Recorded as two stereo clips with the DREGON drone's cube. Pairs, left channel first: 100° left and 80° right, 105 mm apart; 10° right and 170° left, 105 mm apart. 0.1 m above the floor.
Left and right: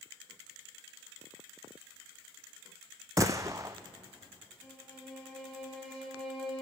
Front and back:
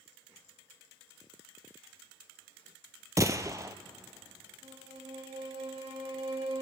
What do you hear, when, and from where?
3.2 s a gunshot: 130° right, 0.8 m
4.6 s a violin: 170° right, 7.5 m